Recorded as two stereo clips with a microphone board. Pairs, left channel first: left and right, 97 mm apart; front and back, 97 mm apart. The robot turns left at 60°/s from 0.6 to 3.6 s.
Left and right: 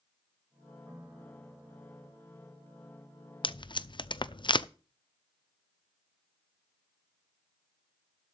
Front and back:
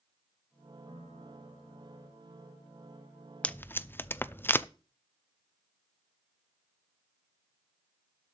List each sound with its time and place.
0.9 s a piano: 145° right, 3.5 m; by 2.1 s 140° left, 3.5 m
3.4 s tape being pulled: 75° left, 0.6 m; by 4.7 s 65° left, 0.6 m